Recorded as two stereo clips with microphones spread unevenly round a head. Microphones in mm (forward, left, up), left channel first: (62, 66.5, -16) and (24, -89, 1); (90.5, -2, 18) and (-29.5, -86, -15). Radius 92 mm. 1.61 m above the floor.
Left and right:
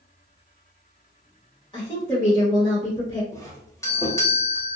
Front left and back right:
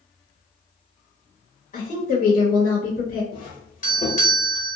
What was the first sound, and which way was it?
A woman speaking, 10° left.